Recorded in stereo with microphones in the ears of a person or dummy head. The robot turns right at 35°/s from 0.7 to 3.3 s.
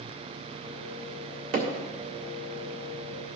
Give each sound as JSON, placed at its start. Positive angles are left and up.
{"t": 1.5, "sound": "hammering", "side_deg": -50, "distance_m": 1.6}